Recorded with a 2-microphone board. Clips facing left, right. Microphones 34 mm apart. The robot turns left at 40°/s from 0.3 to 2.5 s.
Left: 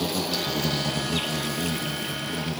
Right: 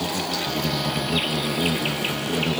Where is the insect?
10° left, 0.9 m; by 2.6 s 80° right, 0.9 m.